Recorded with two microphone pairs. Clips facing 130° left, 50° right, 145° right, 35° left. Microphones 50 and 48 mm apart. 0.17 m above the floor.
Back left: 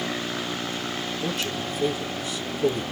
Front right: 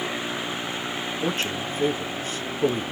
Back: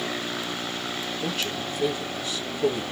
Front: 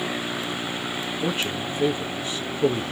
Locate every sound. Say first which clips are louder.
1.2 s a man speaking: front right 3 dB, front 4 dB; 25° right, 1.4 m